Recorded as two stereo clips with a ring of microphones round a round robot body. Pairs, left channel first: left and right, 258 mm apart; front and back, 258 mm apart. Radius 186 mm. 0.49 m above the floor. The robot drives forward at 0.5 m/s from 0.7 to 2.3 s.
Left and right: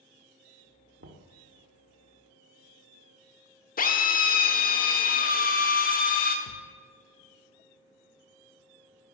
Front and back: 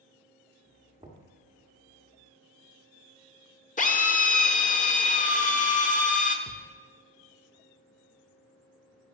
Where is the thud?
65° left, 0.7 m.